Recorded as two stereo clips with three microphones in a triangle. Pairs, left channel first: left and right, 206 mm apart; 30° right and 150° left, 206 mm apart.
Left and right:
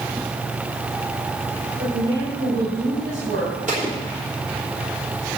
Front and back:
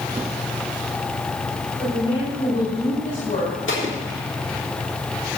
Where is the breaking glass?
No breaking glass in this recording.